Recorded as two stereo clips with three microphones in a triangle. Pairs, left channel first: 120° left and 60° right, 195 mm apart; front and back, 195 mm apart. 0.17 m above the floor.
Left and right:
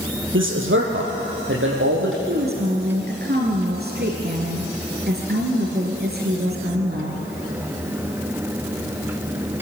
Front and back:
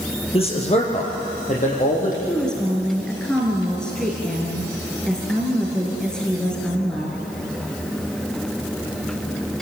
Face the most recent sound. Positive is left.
turn(degrees=-85)